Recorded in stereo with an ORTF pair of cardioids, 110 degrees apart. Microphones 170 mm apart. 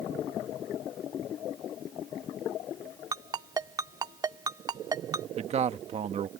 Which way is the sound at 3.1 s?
20° right.